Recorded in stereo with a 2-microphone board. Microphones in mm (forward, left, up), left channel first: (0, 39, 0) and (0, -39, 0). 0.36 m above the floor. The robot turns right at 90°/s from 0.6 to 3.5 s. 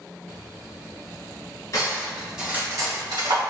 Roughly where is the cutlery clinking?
Left.